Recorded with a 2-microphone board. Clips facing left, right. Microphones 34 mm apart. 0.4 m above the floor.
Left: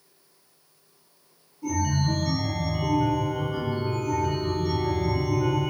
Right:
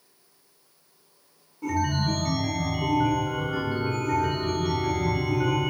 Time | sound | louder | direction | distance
1.6 | a chime | right 1 dB | 60° right (ahead or behind) | 1.8 m